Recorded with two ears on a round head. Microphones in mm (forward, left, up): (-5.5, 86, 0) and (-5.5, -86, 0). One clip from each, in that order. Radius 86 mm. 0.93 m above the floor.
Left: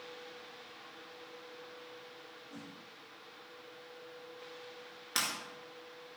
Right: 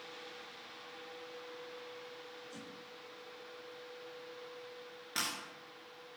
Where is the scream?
I don't hear a scream.